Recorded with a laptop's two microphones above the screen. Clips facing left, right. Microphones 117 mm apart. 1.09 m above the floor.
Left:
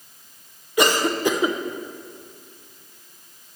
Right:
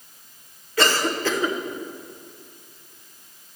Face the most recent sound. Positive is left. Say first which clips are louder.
# left 2 dB
turn(degrees=15)  # may be behind; listen again after turning